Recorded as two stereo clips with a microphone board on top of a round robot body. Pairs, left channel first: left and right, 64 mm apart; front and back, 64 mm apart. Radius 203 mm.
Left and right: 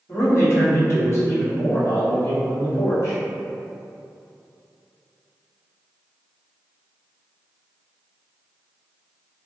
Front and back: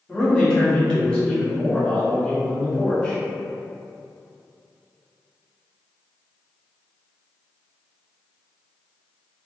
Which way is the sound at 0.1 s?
75° left.